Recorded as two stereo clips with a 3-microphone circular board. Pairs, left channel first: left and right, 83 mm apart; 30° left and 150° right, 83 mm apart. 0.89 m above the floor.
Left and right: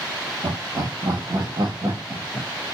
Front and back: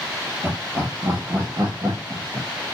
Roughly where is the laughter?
Right.